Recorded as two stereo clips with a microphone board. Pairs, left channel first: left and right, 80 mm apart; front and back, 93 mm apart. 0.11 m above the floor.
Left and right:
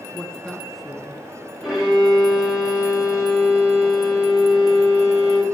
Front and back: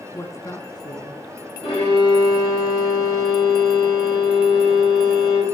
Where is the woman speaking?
20° left, 1.3 m; by 1.2 s 5° right, 1.7 m.